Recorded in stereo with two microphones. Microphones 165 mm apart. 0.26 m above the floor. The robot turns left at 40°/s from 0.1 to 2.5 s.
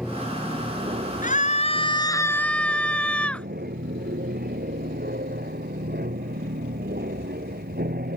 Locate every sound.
0.0 s an aircraft: 5° right; by 8.2 s 100° right
1.2 s a scream: 60° left; by 3.5 s 5° left